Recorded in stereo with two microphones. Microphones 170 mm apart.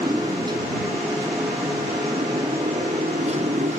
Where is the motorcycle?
20° right (ahead or behind); by 3.8 s 45° right (ahead or behind).